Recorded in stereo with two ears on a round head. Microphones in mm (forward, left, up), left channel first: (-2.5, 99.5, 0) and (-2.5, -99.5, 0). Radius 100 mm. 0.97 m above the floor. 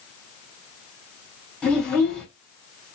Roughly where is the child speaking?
Centre.